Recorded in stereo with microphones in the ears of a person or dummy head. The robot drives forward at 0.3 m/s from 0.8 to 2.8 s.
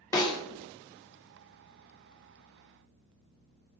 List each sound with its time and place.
0.1 s a snare drum: 15° left (ahead or behind), 0.8 m